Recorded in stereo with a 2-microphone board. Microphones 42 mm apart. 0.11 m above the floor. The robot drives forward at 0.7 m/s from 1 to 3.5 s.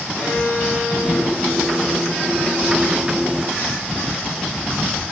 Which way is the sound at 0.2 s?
45° left (ahead or behind).